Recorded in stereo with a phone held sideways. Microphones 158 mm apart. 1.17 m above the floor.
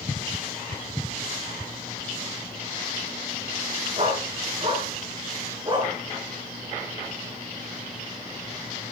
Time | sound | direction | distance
4.0 | a dog barking | 45° right (ahead or behind) | 5 m